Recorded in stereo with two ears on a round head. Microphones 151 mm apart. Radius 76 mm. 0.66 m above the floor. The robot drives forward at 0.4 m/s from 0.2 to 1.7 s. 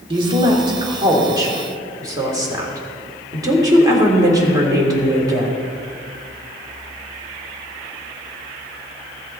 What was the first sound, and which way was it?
A woman speaking, 30° right (ahead or behind).